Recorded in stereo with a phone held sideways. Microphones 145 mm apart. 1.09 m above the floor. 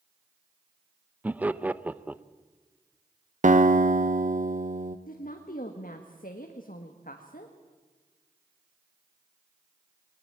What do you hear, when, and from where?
1.2 s laughter: 10° right (ahead or behind), 0.6 m
3.4 s a guitar: 60° right (ahead or behind), 1.2 m
5.1 s a woman speaking: 75° left (ahead or behind), 1.6 m